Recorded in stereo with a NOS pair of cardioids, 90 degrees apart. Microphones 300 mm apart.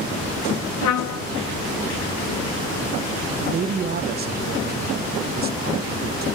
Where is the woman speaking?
35° right, 0.5 m.